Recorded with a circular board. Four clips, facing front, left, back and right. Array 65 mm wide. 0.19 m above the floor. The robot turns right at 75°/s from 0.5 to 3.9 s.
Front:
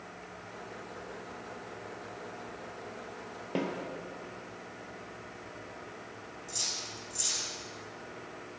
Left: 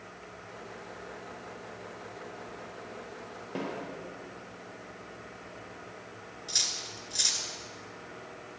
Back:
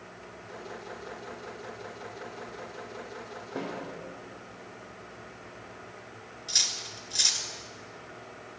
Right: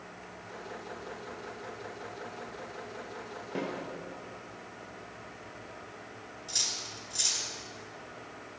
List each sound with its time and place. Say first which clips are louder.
3.5 s a snare drum: even, front 3 dB; 5° left, 3 m; by 3.7 s 20° left, 3 m
6.5 s cutlery clinking: left 2 dB, back 5 dB; 160° left, 1.4 m